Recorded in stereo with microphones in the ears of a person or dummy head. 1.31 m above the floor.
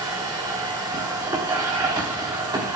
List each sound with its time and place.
0.0 s a machine running: 20° right (ahead or behind), 1.0 m